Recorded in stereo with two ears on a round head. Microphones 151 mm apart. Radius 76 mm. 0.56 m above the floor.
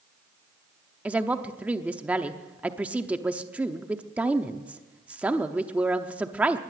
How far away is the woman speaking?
About 0.8 m.